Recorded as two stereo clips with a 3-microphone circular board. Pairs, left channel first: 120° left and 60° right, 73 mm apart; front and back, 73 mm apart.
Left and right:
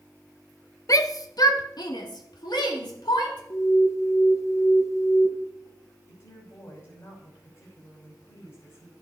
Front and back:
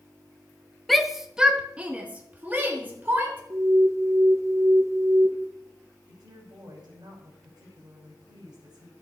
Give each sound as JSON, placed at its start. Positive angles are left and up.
{"t": 0.9, "sound": "a shout", "azimuth_deg": 90, "distance_m": 0.9}
{"t": 3.5, "sound": "an alarm", "azimuth_deg": 150, "distance_m": 1.6}
{"t": 6.1, "sound": "a woman speaking", "azimuth_deg": 155, "distance_m": 5.5}